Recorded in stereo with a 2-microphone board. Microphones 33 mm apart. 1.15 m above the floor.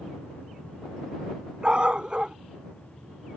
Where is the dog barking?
30° right (ahead or behind).